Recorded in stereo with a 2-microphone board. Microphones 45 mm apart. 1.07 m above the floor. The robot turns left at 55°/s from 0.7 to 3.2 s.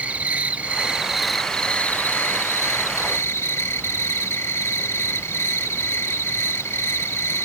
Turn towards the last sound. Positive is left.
turn(degrees=75)